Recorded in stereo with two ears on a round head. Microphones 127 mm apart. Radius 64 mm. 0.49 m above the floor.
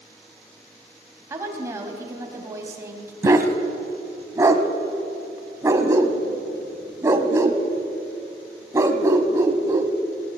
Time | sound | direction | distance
1.3 | a woman speaking | 20° right (ahead or behind) | 3.5 m
3.2 | a dog barking | 20° right (ahead or behind) | 1.5 m